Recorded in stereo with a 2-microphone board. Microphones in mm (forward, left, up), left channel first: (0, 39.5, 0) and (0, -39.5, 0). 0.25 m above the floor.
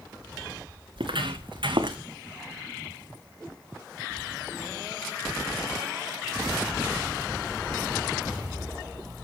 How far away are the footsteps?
About 1.8 m.